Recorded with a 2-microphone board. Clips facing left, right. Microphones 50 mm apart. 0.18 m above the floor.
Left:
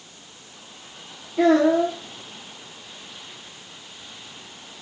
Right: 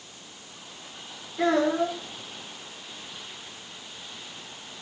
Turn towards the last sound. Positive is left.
turn(degrees=65)  # may be behind; listen again after turning